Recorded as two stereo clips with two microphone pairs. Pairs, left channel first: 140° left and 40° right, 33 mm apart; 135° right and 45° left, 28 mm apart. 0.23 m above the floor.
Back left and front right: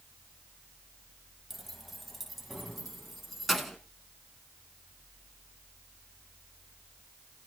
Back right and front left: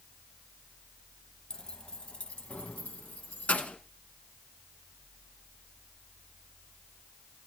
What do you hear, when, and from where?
1.5 s keys jangling: 125° right, 0.8 m; by 3.8 s 130° right, 1.8 m